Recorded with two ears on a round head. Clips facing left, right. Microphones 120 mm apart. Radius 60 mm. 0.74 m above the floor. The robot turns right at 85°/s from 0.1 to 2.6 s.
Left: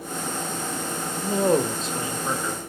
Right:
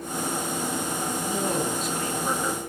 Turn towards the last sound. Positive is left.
turn(degrees=-155)